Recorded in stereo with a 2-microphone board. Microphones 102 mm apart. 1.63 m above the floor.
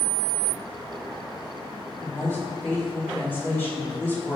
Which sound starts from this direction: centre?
A woman speaking, at 2.0 s.